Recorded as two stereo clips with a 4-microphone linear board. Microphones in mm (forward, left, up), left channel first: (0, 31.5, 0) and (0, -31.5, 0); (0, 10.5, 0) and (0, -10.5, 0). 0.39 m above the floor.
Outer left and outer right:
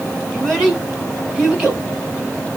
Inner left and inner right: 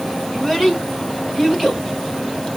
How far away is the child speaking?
About 1.7 m.